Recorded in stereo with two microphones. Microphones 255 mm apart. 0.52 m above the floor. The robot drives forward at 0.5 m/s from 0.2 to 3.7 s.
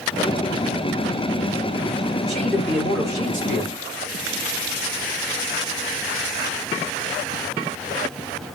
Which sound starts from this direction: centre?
A man speaking, at 2.3 s.